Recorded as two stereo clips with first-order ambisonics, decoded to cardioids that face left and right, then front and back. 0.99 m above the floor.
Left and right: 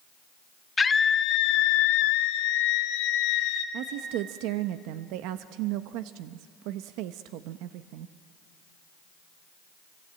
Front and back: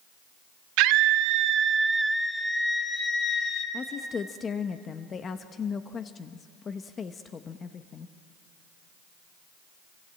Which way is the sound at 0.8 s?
170° left.